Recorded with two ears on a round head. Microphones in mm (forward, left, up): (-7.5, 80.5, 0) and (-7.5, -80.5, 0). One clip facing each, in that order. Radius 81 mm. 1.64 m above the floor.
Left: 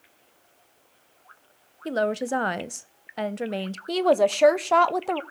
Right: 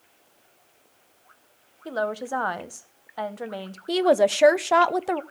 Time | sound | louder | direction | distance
1.9 | a woman speaking | left 3 dB | 25° left (ahead or behind) | 0.7 m
3.9 | a woman speaking | right 1 dB | 5° right (ahead or behind) | 0.6 m